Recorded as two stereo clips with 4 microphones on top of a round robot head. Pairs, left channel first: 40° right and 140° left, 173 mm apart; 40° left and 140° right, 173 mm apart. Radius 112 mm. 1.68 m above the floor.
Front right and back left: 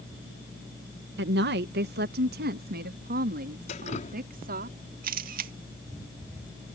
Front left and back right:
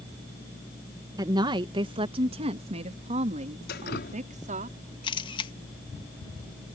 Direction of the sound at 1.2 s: 150° left.